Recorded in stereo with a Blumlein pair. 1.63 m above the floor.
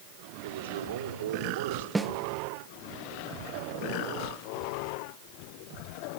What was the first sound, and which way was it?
A man speaking, 65° right.